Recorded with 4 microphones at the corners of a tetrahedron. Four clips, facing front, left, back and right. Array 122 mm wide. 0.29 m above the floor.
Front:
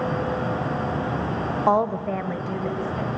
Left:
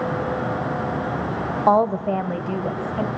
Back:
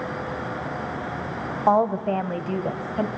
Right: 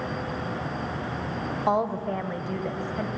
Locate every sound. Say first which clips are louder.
1.7 s a woman speaking: left 8 dB, back 2 dB; 100° left, 1.0 m; by 3.1 s 145° left, 1.4 m